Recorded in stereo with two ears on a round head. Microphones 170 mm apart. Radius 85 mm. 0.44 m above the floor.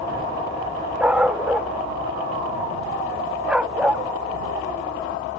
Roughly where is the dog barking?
Centre.